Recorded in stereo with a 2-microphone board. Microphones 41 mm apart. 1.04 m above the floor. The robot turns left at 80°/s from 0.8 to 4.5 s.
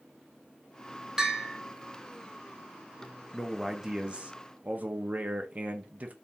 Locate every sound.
1.2 s a bell: 165° right, 1.2 m; by 1.6 s 160° left, 1.2 m
3.3 s a man speaking: 15° left, 1.0 m; by 6.1 s 80° right, 1.0 m